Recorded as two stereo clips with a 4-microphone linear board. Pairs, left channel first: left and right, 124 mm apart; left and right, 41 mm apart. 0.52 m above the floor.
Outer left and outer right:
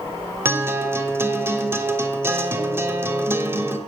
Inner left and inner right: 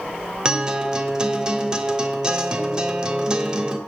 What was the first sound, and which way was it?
A guitar, 20° right (ahead or behind).